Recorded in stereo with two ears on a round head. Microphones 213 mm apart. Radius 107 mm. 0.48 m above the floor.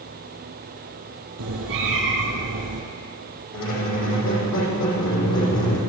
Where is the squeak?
55° left (ahead or behind), 7 m.